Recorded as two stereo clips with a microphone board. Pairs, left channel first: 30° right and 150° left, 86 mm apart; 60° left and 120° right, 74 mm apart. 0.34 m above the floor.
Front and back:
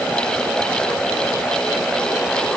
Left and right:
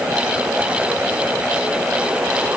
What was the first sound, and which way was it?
Only background noise.